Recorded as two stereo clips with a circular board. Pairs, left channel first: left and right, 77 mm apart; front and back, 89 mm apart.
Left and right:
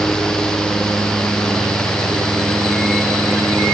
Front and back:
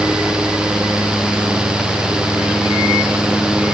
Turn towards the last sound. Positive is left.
No sound to turn to.